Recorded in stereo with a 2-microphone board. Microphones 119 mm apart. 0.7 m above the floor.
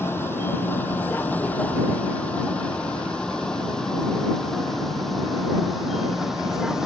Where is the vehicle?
20° left (ahead or behind); by 6.9 s 5° right (ahead or behind).